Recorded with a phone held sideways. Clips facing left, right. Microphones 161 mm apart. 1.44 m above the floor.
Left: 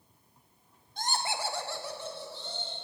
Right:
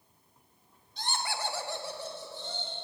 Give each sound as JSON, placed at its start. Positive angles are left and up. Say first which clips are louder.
{"t": 1.0, "sound": "laughter", "louder": "left 2 dB", "side_deg": 50, "distance_m": 1.0}